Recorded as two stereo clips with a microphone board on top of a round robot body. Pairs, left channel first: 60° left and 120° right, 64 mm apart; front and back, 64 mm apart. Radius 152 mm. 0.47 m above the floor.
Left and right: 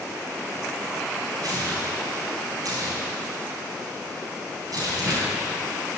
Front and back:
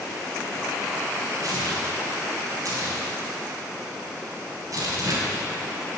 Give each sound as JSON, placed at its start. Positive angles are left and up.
{"t": 1.4, "sound": "tearing paper", "azimuth_deg": -145, "distance_m": 4.5}